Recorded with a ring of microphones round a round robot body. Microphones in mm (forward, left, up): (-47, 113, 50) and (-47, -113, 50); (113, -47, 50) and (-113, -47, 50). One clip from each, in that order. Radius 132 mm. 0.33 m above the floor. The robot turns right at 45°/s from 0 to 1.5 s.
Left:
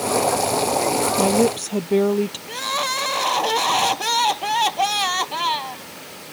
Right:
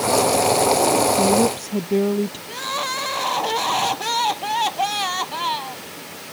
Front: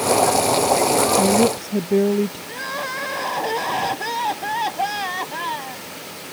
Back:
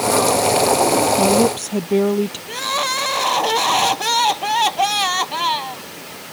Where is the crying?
150° left.